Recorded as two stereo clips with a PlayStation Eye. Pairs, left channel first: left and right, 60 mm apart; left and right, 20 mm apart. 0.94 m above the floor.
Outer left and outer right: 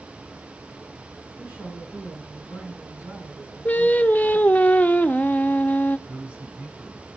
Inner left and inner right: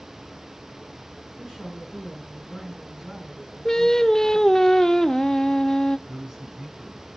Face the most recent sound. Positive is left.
turn(degrees=-25)  # may be behind; listen again after turning